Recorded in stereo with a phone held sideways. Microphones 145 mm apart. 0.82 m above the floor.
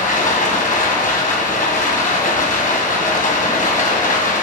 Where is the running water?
70° left (ahead or behind), 2.5 m.